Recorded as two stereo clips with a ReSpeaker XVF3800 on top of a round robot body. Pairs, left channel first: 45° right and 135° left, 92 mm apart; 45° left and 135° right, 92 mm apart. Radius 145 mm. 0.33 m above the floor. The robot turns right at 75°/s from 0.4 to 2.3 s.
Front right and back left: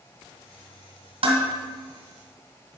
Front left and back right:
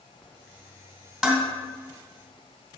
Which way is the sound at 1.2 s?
140° left.